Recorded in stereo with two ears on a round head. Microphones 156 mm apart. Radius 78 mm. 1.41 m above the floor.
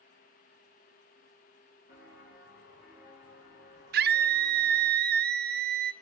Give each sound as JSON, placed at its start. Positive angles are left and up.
{"t": 1.9, "sound": "footsteps", "side_deg": 55, "distance_m": 6.0}
{"t": 3.9, "sound": "a scream", "side_deg": -60, "distance_m": 0.6}